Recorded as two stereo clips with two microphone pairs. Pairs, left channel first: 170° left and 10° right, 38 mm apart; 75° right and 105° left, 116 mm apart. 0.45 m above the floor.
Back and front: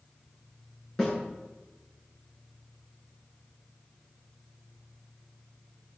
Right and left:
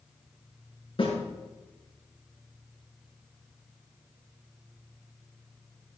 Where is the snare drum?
115° right, 7 m.